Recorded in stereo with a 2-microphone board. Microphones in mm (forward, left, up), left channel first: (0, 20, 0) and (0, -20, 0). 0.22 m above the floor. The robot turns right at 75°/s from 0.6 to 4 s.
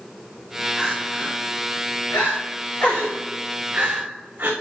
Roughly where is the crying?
Centre.